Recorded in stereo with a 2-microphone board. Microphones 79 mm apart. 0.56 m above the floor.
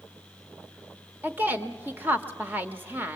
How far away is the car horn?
I don't hear a car horn.